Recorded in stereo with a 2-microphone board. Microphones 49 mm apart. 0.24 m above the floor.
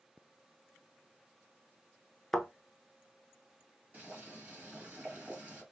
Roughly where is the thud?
Centre.